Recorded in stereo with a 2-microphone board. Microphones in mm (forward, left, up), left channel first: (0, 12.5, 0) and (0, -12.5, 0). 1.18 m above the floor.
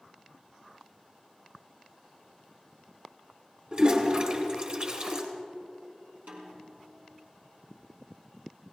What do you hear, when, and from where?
3.7 s a toilet flushing: 45° right (ahead or behind), 3 m
6.3 s a snare drum: 80° right, 4 m